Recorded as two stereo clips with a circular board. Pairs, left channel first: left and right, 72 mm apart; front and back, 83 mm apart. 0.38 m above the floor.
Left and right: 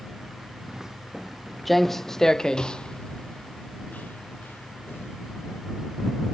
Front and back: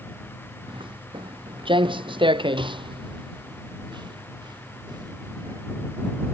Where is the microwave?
No microwave in this recording.